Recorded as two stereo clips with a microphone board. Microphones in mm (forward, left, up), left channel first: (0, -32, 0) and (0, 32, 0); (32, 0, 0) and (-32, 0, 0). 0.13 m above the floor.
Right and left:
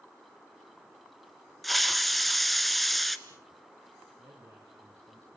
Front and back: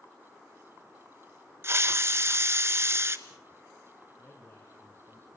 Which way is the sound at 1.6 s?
Straight behind.